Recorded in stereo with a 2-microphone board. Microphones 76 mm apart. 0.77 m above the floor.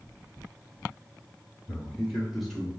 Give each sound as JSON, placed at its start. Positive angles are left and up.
{"t": 1.7, "sound": "a man speaking", "side_deg": -5, "distance_m": 1.9}